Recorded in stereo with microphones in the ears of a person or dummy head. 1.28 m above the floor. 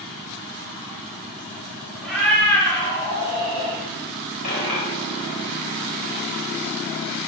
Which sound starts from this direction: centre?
A cat meowing, at 2.0 s.